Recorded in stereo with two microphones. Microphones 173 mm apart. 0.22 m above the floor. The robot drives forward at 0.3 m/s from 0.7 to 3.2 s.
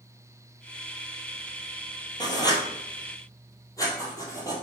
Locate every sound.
2.2 s writing: 25° left (ahead or behind), 1.0 m; by 4.5 s 20° left (ahead or behind), 1.3 m